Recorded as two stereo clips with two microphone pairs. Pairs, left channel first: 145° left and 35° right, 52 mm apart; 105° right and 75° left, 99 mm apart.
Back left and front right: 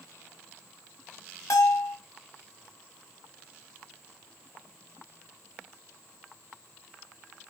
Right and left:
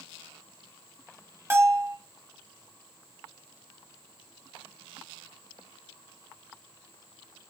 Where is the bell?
140° left, 0.8 m.